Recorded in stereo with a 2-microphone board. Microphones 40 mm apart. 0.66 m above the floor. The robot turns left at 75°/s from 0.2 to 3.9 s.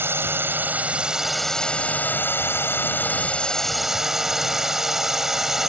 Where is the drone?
95° right; by 5.7 s 10° right.